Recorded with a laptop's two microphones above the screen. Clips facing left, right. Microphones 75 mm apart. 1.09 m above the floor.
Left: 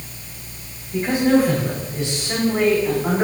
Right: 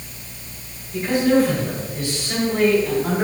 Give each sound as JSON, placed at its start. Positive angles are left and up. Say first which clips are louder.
{"t": 0.9, "sound": "a man speaking", "louder": "even", "side_deg": 35, "distance_m": 4.0}